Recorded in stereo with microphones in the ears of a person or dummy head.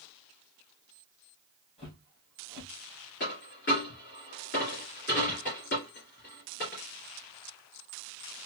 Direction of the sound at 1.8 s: 25° left (ahead or behind).